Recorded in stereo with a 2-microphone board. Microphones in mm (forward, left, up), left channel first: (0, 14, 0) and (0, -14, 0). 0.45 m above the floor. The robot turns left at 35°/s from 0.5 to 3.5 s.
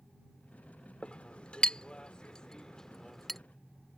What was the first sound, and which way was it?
A clink, 35° left (ahead or behind).